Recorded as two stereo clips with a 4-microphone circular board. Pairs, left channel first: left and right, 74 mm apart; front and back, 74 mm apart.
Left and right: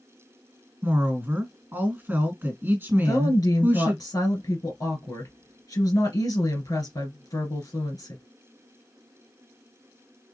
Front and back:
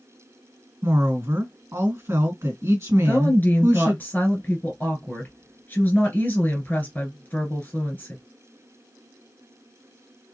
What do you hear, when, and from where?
0.8 s a woman speaking: 140° right, 2.5 m
3.0 s a woman speaking: 65° left, 2.5 m